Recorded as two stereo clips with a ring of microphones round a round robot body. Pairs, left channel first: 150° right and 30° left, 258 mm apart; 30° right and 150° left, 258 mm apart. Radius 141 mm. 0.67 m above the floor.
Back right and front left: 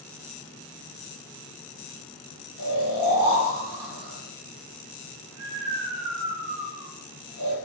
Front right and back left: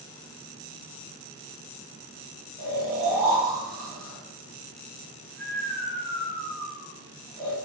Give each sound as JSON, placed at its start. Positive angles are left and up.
{"t": 2.6, "sound": "snoring", "azimuth_deg": 60, "distance_m": 1.6}